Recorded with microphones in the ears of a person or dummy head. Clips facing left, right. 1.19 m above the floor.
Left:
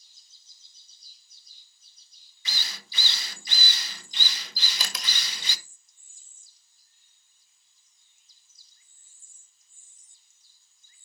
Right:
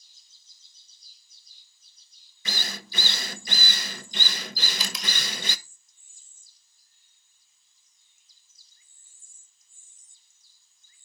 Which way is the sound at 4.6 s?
50° left (ahead or behind).